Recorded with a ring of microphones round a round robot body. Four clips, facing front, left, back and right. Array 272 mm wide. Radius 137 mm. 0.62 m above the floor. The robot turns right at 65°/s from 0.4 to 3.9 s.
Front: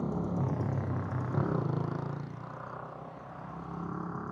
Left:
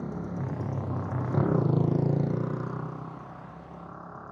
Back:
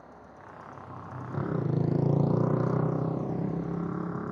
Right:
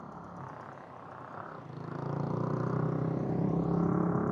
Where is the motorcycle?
30° left; by 4.3 s 100° right.